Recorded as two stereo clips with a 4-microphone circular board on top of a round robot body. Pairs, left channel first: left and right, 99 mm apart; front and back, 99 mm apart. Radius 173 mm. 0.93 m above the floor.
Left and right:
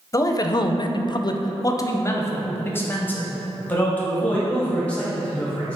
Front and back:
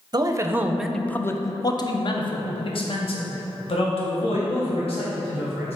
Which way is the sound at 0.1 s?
140° left.